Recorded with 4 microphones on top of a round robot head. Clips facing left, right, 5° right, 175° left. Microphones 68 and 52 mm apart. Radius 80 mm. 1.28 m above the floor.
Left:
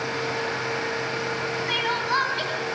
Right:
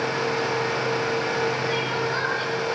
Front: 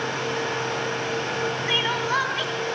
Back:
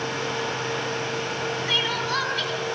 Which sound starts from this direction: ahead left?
Crying, at 1.7 s.